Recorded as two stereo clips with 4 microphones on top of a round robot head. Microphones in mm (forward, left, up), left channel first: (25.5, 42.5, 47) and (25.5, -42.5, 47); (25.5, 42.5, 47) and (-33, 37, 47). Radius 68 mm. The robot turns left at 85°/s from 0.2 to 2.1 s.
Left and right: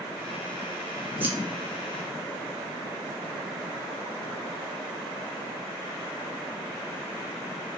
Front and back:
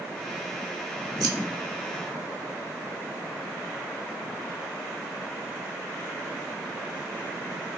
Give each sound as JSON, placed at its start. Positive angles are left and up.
{"t": 1.2, "sound": "scissors", "azimuth_deg": -160, "distance_m": 0.6}